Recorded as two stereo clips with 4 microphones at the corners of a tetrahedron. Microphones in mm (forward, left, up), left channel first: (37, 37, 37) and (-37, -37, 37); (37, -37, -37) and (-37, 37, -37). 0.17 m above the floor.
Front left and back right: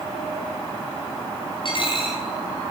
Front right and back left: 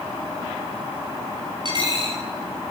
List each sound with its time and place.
1.6 s a dropped coin: 90° left, 4 m